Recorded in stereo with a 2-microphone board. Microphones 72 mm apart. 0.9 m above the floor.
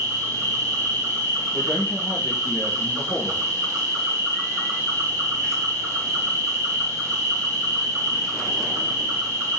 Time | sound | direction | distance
0.0 | an insect | 50° right (ahead or behind) | 1.1 m
1.5 | a man speaking | 50° left (ahead or behind) | 1.4 m